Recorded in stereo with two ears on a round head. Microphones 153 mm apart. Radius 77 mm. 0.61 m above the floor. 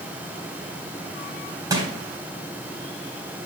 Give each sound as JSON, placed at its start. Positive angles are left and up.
{"t": 1.7, "sound": "crushing", "side_deg": -20, "distance_m": 3.5}